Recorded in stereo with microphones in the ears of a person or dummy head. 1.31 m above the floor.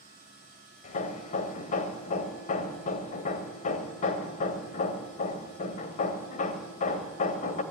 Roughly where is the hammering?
Left.